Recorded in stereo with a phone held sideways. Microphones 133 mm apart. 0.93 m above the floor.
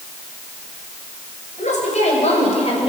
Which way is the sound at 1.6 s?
65° left (ahead or behind).